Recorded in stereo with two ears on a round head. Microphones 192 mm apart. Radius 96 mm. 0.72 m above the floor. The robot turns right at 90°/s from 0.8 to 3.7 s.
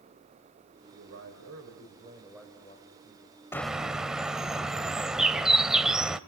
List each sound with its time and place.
0.9 s a man speaking: 135° right, 3.5 m; by 3.4 s 90° left, 3.5 m
3.5 s a bird: 10° left (ahead or behind), 0.9 m; by 6.2 s 5° right (ahead or behind), 0.9 m